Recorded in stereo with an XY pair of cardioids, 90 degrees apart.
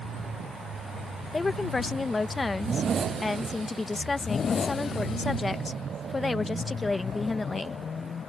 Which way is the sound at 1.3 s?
30° left.